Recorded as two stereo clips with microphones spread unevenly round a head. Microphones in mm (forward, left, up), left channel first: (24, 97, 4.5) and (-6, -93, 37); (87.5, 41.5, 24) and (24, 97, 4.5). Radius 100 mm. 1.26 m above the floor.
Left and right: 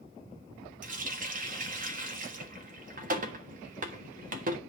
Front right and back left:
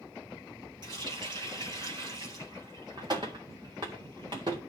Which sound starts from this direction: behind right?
A running tap, at 0.8 s.